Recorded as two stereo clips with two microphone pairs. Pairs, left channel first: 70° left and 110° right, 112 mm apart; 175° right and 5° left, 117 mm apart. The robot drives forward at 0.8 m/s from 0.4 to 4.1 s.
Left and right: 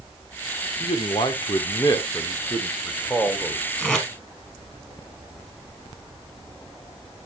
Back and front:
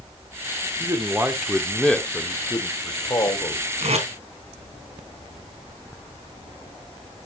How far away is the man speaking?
About 1.4 m.